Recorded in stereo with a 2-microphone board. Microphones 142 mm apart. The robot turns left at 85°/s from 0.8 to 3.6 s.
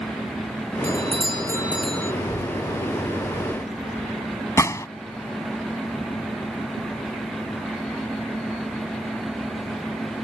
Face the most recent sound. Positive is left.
turn(degrees=20)  # may be behind; listen again after turning